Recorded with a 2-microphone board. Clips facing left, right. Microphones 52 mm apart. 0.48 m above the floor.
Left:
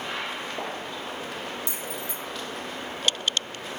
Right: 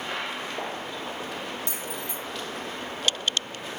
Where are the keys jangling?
55° right (ahead or behind), 3.5 m.